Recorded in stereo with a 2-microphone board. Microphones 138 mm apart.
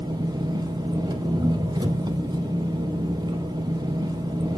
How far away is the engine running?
About 0.9 m.